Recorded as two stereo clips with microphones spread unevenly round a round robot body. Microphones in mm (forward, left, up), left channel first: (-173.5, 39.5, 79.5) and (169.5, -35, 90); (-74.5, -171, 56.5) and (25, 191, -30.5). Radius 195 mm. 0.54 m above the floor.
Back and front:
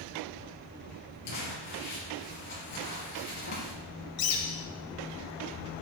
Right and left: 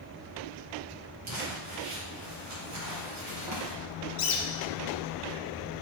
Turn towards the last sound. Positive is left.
turn(degrees=-165)